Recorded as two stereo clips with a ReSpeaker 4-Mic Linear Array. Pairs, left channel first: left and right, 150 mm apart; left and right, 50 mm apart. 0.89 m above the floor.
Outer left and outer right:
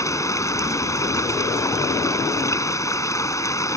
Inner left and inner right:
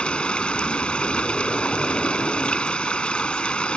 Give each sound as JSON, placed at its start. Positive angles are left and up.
{"t": 0.0, "sound": "running water", "side_deg": 20}